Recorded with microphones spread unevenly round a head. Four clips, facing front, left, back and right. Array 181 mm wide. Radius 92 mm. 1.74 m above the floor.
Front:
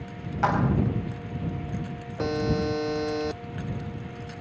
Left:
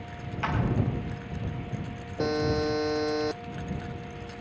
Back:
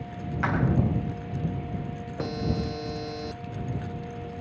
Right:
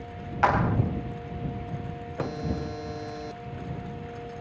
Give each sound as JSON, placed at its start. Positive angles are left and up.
{"t": 0.4, "sound": "a clap", "azimuth_deg": -70}
{"t": 2.2, "sound": "a buzzer", "azimuth_deg": 45}